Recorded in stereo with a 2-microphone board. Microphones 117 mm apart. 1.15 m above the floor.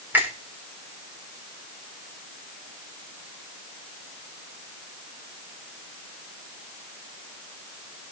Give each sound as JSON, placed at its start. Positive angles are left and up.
{"t": 0.1, "sound": "a finger snap", "side_deg": -15, "distance_m": 3.5}